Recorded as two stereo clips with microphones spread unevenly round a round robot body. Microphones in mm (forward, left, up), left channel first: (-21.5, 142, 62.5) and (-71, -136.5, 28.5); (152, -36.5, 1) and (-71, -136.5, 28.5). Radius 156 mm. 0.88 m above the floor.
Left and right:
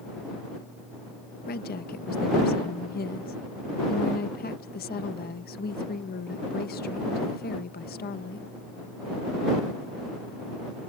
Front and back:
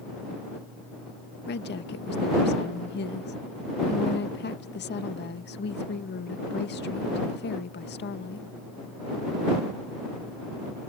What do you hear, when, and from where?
1.5 s a woman speaking: 25° left